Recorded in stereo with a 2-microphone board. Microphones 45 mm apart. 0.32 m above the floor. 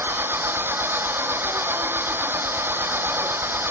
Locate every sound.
0.0 s an engine running: 55° right (ahead or behind)